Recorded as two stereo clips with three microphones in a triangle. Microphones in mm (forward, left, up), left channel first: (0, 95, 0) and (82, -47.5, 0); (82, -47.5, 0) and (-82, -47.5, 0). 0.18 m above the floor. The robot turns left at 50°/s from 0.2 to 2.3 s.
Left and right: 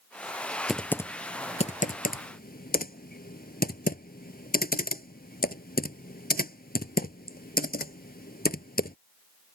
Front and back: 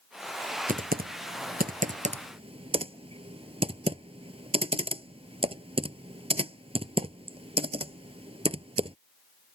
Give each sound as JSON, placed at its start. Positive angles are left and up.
{"t": 0.7, "sound": "typing on a keyboard", "azimuth_deg": -150}